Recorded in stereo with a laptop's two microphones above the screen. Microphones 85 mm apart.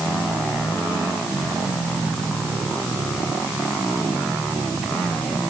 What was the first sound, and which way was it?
Only background noise.